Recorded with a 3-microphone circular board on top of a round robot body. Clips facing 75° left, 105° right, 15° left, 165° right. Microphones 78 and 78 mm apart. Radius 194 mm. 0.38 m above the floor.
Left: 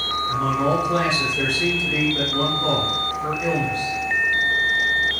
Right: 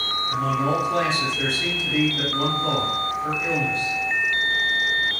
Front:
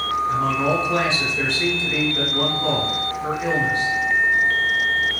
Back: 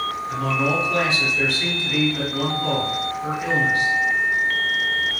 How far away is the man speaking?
About 1.9 m.